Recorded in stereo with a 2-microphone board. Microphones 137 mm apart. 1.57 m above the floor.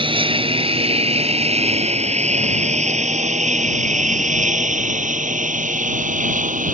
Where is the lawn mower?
40° right (ahead or behind); by 6.7 s 70° right (ahead or behind).